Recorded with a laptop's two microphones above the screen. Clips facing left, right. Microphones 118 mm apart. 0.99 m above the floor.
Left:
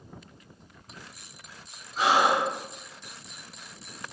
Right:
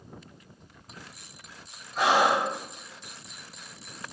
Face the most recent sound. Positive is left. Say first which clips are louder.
# even
turn(degrees=-55)  # may be behind; listen again after turning